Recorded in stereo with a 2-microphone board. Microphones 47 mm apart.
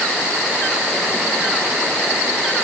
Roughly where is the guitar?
No guitar in this recording.